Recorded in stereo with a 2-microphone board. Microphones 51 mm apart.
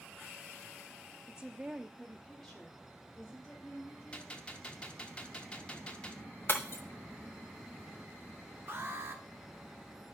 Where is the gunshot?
20° left (ahead or behind), 0.8 m.